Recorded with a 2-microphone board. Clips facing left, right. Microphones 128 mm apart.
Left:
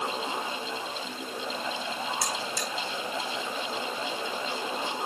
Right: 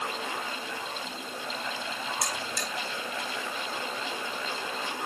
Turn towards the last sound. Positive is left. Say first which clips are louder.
# left 2 dB
turn(degrees=-60)  # may be behind; listen again after turning